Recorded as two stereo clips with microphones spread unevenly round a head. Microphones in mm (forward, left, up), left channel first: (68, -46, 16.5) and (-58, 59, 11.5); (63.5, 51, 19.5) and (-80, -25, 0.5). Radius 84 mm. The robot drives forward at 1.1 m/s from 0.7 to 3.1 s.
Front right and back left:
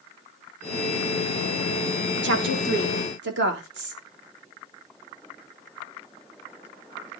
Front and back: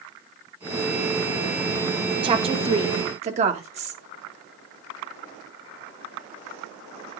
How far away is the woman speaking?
About 1.7 m.